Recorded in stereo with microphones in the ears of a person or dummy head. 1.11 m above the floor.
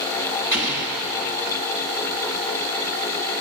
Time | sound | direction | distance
0.5 | an explosion | 20° right (ahead or behind) | 6.5 m